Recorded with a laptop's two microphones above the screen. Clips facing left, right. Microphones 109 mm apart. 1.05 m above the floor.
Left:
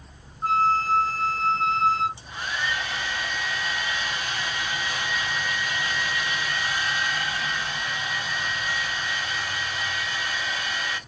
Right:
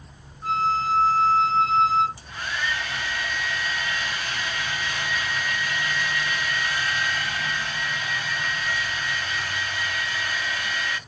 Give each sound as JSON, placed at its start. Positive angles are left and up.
{"t": 0.4, "sound": "a flute", "side_deg": 55, "distance_m": 2.0}
{"t": 2.2, "sound": "a hair dryer", "side_deg": 20, "distance_m": 0.7}